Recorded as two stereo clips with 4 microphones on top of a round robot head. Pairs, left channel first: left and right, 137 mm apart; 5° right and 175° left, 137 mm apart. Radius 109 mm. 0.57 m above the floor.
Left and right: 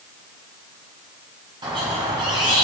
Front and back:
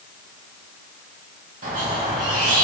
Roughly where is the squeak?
Behind right.